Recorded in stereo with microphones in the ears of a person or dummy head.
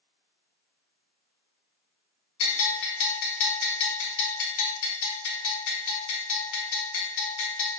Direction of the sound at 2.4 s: 70° left (ahead or behind).